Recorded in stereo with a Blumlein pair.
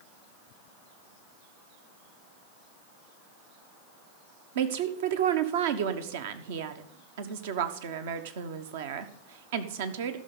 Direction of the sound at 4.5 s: 55° right.